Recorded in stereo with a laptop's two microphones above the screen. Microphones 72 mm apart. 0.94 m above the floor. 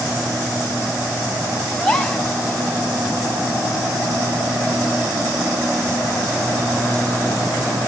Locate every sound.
1.8 s a gasp: 10° left (ahead or behind), 4 m